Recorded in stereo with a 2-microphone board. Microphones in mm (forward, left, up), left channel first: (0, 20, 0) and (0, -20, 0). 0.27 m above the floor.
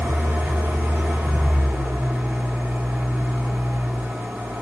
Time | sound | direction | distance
0.0 | an engine running | 70° right (ahead or behind) | 7 m